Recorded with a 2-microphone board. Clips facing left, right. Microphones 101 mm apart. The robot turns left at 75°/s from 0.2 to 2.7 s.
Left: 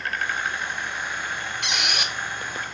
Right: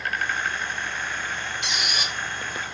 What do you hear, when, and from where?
1.6 s a squeak: 100° left, 1.7 m; by 2.2 s 60° left, 1.7 m